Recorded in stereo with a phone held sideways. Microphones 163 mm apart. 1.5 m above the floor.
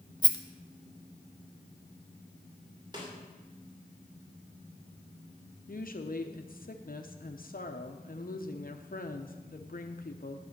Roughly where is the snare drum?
Right.